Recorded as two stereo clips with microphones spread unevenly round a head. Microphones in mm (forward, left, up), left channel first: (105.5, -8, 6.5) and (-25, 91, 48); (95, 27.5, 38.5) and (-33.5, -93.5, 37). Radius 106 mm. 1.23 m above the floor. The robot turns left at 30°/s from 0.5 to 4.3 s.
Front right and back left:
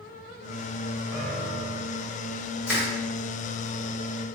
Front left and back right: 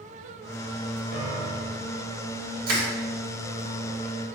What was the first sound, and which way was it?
A piano, 140° right.